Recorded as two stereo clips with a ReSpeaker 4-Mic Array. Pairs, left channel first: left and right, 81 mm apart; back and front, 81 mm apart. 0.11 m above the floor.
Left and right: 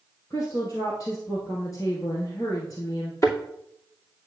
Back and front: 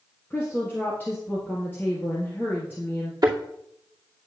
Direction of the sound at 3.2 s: 40° left.